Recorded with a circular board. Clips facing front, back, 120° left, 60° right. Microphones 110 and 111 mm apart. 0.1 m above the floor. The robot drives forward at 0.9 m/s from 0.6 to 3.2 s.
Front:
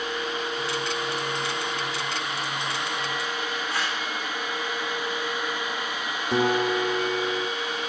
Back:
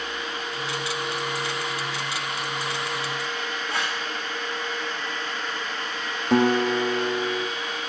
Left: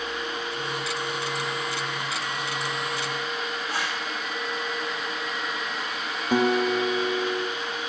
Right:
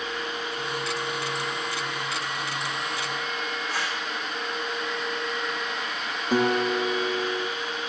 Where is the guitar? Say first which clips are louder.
Back 3 dB, left 1 dB; 165° right, 1.5 m.